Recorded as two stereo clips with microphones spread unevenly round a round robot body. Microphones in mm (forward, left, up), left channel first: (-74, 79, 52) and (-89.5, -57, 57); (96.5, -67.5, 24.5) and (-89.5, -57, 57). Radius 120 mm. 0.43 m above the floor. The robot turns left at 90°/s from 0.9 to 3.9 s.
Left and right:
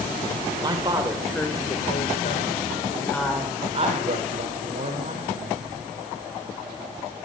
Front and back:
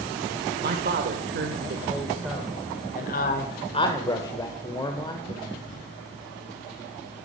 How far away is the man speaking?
About 1.6 m.